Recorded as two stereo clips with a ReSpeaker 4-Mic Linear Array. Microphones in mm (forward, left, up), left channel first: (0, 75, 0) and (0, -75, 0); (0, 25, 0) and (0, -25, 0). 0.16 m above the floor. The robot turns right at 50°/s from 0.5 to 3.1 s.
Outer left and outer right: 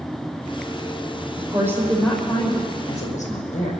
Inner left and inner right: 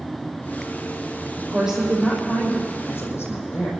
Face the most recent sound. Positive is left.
turn(degrees=55)